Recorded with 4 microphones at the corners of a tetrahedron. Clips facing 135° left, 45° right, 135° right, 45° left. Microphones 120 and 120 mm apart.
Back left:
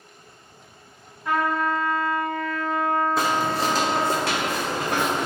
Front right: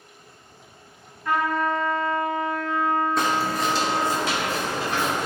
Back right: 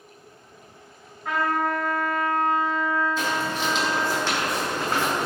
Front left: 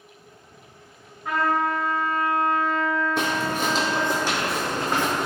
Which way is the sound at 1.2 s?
125° left.